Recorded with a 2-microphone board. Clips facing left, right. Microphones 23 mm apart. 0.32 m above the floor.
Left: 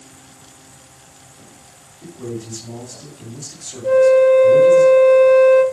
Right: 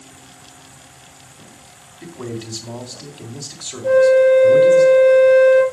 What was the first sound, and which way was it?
A man speaking, 50° right (ahead or behind).